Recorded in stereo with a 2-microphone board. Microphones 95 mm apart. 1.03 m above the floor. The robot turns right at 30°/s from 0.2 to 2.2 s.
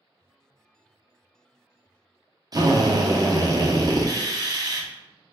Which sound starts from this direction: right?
A drill, at 2.5 s.